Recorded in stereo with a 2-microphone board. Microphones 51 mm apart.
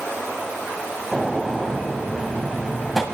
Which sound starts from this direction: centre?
A gunshot, at 1.1 s.